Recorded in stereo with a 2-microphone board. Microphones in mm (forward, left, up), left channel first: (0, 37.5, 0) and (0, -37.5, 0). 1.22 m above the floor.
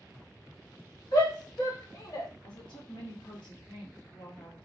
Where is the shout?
65° left (ahead or behind), 1.5 m; by 2.3 s 45° left (ahead or behind), 0.9 m.